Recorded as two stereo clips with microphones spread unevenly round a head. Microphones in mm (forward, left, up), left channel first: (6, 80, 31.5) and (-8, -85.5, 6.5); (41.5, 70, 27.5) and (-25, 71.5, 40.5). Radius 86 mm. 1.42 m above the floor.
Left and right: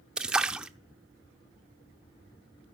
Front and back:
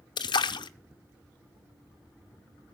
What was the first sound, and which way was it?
A splash, 10° right.